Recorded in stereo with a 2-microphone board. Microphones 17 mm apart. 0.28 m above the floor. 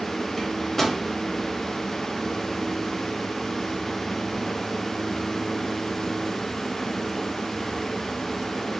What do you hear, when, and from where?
0.4 s a microwave: 20° left (ahead or behind), 0.7 m